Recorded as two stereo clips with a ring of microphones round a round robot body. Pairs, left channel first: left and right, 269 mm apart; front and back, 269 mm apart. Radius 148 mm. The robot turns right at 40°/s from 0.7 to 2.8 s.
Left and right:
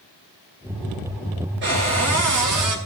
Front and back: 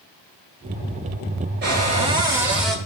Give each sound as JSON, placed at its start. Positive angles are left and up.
{"t": 1.6, "sound": "a cupboard door", "azimuth_deg": -130, "distance_m": 2.0}